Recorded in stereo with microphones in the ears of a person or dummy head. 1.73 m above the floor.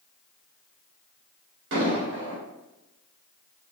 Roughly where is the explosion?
Right.